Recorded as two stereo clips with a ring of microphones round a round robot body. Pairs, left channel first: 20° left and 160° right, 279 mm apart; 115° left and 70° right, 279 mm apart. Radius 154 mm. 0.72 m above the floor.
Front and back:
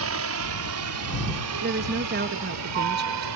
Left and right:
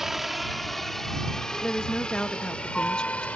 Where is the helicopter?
155° right; by 3.4 s 160° right.